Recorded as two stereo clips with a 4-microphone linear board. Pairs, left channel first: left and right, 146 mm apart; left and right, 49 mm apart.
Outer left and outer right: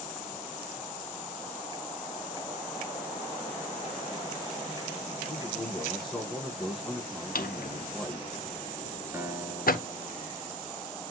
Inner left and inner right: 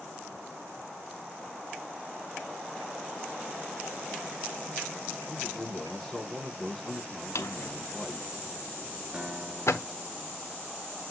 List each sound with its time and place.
5.3 s a man speaking: centre (ahead or behind), 6 m
7.3 s a drawer: 80° left, 1.0 m
9.1 s a guitar: 20° right (ahead or behind), 2.5 m